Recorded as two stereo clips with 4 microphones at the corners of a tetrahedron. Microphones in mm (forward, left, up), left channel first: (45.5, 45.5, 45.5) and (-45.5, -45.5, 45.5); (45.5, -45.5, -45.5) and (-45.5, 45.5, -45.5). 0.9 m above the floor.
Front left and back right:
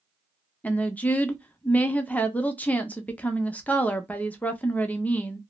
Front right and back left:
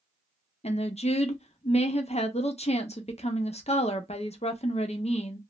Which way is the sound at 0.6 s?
30° right.